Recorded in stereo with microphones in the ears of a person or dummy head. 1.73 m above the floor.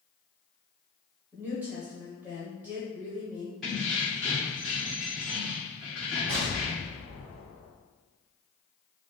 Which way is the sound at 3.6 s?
Centre (ahead or behind).